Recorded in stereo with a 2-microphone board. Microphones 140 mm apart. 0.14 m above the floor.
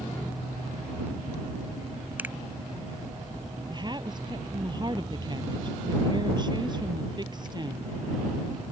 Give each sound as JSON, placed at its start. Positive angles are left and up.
{"t": 2.2, "sound": "a finger snap", "side_deg": -15}
{"t": 3.7, "sound": "a woman speaking", "side_deg": -30}